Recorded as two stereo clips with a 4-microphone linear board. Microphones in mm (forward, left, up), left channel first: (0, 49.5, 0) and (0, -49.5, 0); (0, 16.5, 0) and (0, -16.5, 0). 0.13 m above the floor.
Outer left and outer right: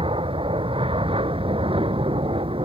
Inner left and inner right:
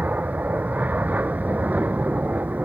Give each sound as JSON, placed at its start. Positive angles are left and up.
{"t": 0.0, "sound": "an aircraft", "side_deg": -65}